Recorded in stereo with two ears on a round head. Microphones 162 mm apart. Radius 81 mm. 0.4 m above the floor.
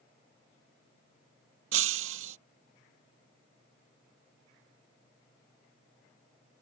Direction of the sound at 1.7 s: 85° right.